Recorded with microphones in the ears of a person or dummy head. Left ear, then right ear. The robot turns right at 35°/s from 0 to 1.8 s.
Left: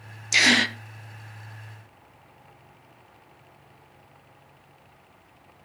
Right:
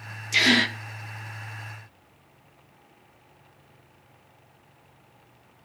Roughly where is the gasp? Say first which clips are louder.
Left 1 dB; left.